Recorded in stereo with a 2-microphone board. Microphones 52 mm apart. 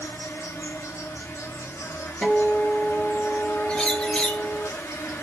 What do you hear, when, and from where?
0.0 s an insect: 65° left (ahead or behind), 1.1 m
2.2 s a guitar: 5° left (ahead or behind), 1.5 m
3.7 s a bird: 15° left (ahead or behind), 1.2 m